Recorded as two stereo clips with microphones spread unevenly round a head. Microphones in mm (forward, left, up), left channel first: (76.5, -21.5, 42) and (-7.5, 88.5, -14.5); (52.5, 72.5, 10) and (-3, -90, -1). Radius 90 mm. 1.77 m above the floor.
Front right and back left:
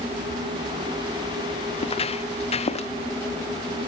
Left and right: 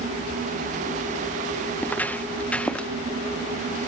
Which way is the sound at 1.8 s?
10° right.